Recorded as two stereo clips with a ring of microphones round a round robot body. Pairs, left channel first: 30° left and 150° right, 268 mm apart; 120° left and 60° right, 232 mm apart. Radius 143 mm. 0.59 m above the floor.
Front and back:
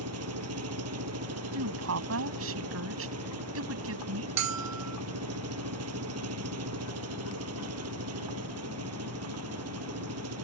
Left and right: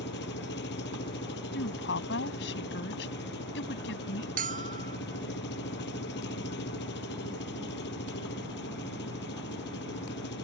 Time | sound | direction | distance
0.0 | an engine running | 175° left | ?
1.5 | a woman speaking | 170° left | ?
4.4 | a bell | 125° right | ?